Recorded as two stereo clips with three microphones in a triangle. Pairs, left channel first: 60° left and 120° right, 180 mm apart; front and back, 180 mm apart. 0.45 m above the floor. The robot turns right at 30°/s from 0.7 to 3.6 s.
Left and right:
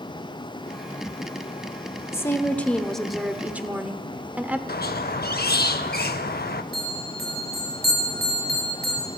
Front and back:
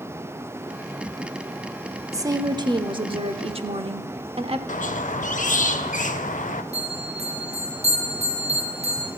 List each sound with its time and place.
2.1 s a woman speaking: 120° left, 0.9 m; by 4.6 s 165° left, 0.9 m
4.7 s a squeak: 40° left, 0.6 m
6.7 s a bell: 130° right, 3.5 m